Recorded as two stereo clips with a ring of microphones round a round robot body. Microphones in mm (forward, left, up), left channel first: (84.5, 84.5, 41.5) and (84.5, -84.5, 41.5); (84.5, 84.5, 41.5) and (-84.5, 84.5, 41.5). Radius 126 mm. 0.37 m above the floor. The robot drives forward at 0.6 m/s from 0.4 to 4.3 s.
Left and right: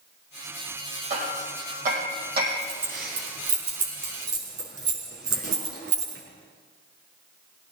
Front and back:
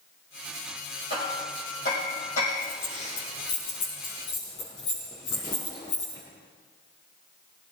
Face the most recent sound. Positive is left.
turn(degrees=-75)